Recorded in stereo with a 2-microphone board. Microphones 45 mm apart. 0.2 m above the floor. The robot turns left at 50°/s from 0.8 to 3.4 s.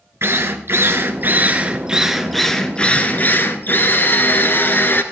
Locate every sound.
0.2 s a drill: 105° right, 1.3 m; by 5.0 s 125° left, 1.3 m